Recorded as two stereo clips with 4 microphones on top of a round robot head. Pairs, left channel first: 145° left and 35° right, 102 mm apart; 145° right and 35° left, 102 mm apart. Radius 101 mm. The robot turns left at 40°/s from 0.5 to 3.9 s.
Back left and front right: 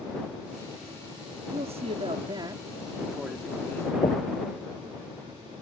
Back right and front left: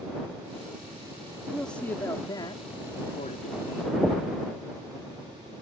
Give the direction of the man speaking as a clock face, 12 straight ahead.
2 o'clock.